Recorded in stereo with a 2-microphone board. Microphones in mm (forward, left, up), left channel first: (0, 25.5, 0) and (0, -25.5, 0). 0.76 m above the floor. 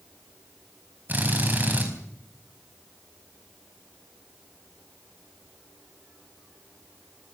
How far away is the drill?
About 4.5 m.